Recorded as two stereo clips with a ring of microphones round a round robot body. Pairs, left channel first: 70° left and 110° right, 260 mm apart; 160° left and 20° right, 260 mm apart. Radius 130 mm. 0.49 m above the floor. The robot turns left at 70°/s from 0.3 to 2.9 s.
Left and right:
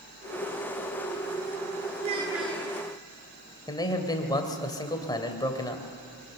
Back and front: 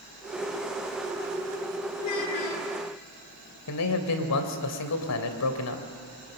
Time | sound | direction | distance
2.0 | a child speaking | 170° right | 5 m
3.7 | a man speaking | 140° left | 2.5 m